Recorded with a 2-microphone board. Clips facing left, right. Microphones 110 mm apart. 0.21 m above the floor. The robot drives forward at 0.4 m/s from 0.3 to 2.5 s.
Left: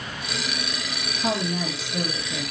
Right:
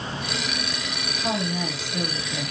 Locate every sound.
1.2 s a woman speaking: 35° left (ahead or behind), 2.5 m; by 2.5 s 30° left (ahead or behind), 3 m